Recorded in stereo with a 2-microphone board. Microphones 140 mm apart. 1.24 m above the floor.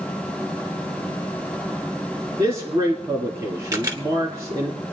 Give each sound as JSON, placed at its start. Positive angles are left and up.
{"t": 2.4, "sound": "a man speaking", "side_deg": -35, "distance_m": 2.0}
{"t": 3.7, "sound": "a camera shutter", "side_deg": -30, "distance_m": 1.7}